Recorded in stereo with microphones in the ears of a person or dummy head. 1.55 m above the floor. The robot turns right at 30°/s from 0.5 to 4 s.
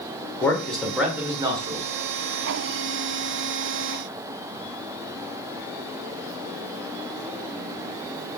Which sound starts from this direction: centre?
A man speaking, at 0.4 s.